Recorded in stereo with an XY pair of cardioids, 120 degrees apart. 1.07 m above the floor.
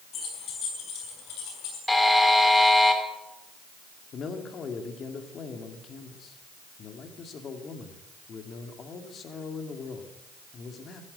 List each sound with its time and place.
0.1 s keys jangling: 55° left, 5.5 m; by 1.8 s 75° left, 7 m
1.9 s a buzzer: 10° left, 2.5 m
4.1 s a man speaking: 45° left, 2.5 m